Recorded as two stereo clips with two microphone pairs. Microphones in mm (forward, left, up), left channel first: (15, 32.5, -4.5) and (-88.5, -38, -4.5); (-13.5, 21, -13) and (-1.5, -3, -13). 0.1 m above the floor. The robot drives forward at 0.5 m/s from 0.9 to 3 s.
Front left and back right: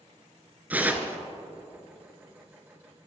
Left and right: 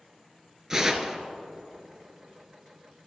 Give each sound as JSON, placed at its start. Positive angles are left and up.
{"t": 0.7, "sound": "tearing paper", "azimuth_deg": -100, "distance_m": 0.9}